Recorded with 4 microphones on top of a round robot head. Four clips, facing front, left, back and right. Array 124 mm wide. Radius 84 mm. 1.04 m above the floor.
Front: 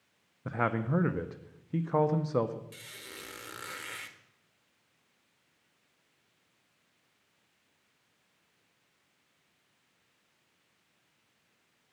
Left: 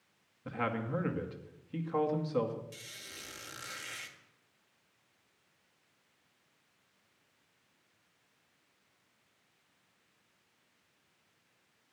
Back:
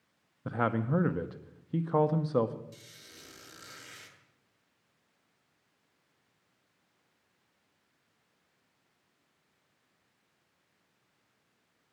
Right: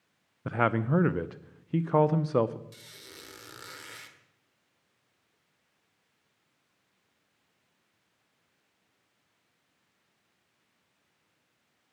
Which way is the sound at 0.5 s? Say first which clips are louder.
Right 8 dB, back 1 dB; 90° right.